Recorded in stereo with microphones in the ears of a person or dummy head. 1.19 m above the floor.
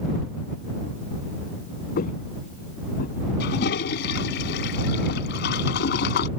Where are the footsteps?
50° left (ahead or behind).